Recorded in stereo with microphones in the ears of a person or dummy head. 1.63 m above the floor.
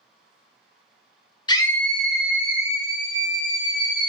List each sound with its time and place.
1.5 s a scream: 25° left (ahead or behind), 0.6 m; by 4.1 s 25° right (ahead or behind), 1.9 m